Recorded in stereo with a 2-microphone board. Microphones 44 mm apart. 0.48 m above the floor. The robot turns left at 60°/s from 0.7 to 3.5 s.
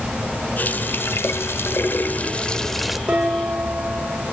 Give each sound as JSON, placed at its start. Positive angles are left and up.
{"t": 0.6, "sound": "a running tap", "azimuth_deg": 130, "distance_m": 1.0}
{"t": 3.1, "sound": "dishes clattering", "side_deg": -25, "distance_m": 8.0}